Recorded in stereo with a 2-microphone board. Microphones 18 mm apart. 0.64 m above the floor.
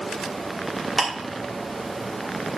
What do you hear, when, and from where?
1.0 s ticking: 5° left (ahead or behind), 2.5 m